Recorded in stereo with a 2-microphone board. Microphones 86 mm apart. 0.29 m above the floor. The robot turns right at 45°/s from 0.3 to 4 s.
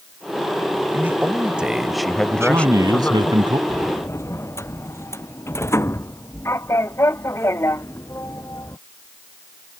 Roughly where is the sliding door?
Left.